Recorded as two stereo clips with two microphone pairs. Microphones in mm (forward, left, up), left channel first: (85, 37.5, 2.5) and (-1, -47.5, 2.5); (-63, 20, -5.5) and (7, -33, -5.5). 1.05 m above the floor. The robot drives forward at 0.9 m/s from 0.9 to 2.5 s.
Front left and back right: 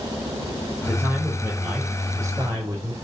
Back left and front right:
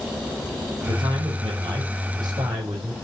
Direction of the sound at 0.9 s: 60° right.